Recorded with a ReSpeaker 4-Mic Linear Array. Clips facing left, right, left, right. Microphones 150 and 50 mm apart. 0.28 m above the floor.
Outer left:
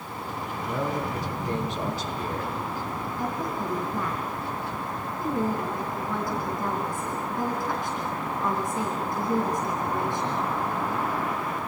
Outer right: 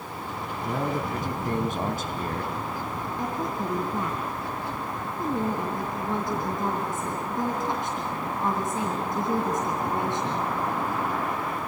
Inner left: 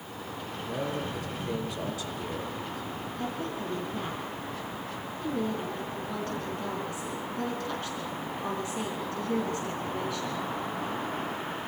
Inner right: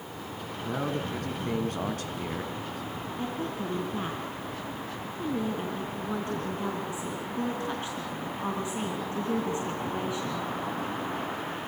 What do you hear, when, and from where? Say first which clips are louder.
0.7 s a man speaking: outer right 1 dB, inner right 2 dB; 50° right (ahead or behind), 3 m
3.2 s a woman speaking: outer right 1 dB, inner right 1 dB; 20° right (ahead or behind), 4 m